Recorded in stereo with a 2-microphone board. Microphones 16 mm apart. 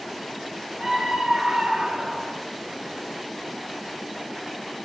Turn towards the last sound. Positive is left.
turn(degrees=-70)  # may be behind; listen again after turning